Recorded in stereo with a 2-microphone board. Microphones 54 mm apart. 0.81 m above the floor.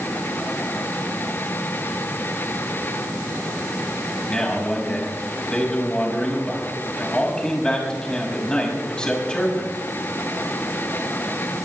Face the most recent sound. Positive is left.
turn(degrees=20)  # may be behind; listen again after turning